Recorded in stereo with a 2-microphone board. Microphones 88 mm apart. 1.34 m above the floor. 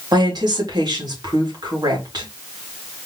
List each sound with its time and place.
0.1 s a woman speaking: 55° right (ahead or behind), 2.5 m